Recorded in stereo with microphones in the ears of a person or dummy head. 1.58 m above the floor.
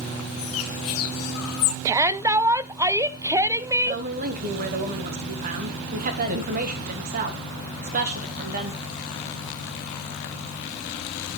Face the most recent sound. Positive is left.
turn(degrees=-40)  # may be behind; listen again after turning